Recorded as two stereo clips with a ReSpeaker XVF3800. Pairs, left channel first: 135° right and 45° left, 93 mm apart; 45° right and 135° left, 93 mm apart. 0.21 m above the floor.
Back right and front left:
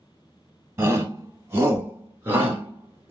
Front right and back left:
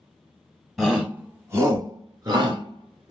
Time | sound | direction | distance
0.8 | a shout | 50° left | 1.2 m